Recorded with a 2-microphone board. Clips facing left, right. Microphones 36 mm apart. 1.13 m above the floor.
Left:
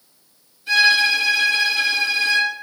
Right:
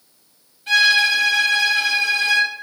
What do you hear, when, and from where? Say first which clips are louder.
0.7 s a violin: even; 55° right (ahead or behind), 1.4 m